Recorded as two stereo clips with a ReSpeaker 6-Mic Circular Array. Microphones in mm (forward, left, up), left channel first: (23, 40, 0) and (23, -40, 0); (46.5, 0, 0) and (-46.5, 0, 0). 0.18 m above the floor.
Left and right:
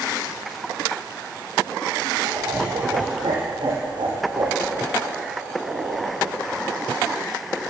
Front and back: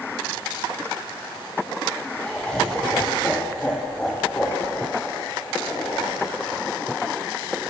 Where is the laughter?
80° right, 5.5 m; by 6.3 s 70° right, 9 m.